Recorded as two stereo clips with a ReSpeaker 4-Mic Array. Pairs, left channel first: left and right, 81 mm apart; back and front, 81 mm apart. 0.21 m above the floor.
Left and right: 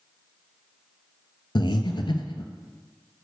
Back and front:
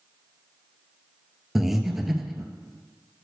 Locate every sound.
1.6 s breathing: 85° left, 0.7 m